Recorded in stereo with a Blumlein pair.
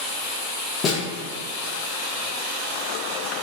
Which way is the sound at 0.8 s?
30° left.